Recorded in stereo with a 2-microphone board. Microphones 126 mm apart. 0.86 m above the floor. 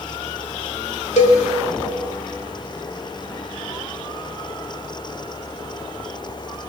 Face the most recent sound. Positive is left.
turn(degrees=65)  # may be behind; listen again after turning